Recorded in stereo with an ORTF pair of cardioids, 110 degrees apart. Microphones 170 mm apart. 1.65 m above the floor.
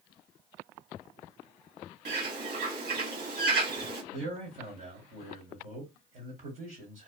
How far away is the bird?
About 1.3 m.